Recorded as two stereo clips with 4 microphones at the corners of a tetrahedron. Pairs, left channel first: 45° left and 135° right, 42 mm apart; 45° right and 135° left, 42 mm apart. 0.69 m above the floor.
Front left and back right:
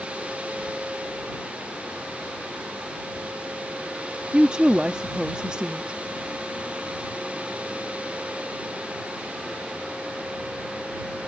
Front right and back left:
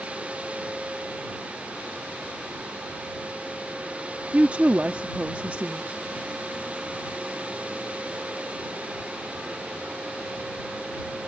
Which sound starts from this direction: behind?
A woman speaking, at 4.3 s.